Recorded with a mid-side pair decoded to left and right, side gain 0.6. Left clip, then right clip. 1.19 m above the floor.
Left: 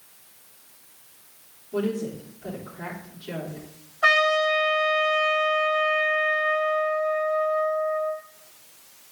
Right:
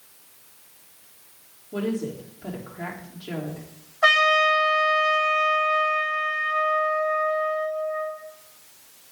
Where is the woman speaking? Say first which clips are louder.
Left 1 dB; 30° right, 3.5 m.